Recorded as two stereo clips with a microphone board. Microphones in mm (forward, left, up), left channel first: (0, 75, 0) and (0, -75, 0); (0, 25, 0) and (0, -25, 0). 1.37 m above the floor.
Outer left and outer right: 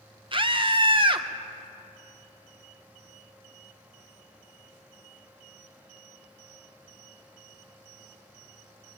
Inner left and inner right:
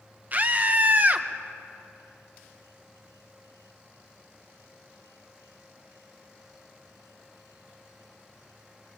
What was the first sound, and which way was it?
A scream, 35° right (ahead or behind).